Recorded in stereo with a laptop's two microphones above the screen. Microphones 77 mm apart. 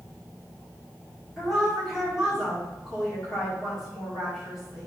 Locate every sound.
1.4 s a woman speaking: 5° right (ahead or behind), 1.7 m